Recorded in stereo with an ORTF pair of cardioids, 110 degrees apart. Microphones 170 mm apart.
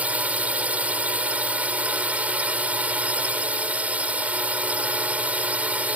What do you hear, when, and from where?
0.0 s a drone: 10° right